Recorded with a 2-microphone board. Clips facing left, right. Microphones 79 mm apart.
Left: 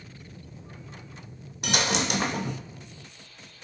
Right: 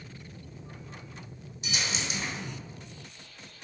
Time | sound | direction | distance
1.6 | a dropped coin | 70° left (ahead or behind) | 0.6 m